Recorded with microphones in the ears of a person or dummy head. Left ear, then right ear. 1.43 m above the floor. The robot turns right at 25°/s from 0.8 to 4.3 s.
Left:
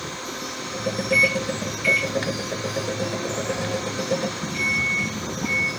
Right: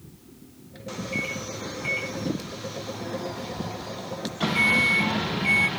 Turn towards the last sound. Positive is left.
turn(degrees=-145)